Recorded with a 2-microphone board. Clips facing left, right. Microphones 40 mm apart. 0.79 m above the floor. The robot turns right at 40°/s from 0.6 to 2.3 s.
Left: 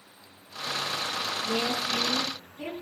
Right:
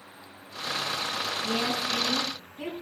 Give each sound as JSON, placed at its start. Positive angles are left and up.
{"t": 1.4, "sound": "a woman speaking", "azimuth_deg": -80, "distance_m": 8.0}